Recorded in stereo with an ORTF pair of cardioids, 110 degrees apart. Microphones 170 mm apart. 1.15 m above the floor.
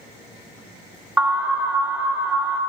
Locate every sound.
1.2 s an alarm: 10° right, 1.1 m